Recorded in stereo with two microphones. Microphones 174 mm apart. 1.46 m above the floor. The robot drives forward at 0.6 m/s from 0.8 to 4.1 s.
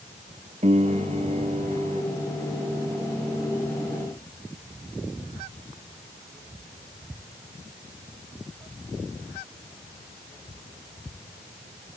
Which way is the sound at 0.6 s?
40° right (ahead or behind).